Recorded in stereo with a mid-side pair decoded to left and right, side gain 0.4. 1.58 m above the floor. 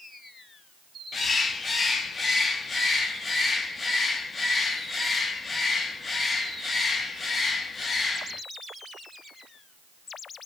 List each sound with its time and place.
1.1 s a bird: 40° left, 2 m